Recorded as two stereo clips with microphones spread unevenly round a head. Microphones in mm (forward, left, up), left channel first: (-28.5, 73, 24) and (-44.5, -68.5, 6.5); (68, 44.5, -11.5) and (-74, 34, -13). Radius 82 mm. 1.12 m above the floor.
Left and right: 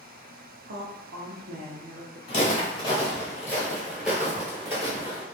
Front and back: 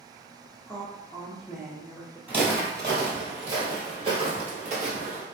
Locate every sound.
0.7 s a woman speaking: 85° right, 0.5 m
2.3 s footsteps: 110° left, 1.6 m; by 5.2 s 155° right, 1.5 m